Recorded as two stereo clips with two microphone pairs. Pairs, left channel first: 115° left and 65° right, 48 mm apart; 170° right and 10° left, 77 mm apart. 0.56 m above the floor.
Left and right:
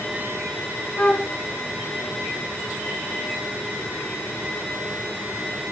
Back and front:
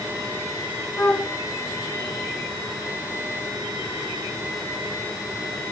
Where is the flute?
175° left, 1.1 m.